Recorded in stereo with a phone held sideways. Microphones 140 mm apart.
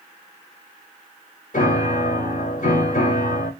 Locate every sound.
1.5 s a piano: 65° left (ahead or behind), 3.5 m